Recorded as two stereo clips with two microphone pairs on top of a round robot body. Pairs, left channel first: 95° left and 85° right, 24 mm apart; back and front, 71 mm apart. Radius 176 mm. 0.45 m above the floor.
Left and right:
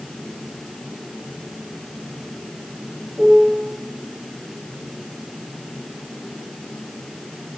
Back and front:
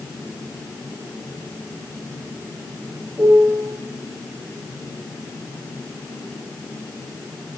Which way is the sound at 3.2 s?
60° right.